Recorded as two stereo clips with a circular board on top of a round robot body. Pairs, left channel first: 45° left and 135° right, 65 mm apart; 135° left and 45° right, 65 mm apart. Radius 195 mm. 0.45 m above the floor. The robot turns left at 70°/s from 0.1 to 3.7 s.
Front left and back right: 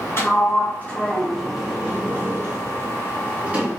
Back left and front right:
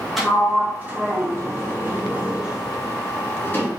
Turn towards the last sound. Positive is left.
turn(degrees=160)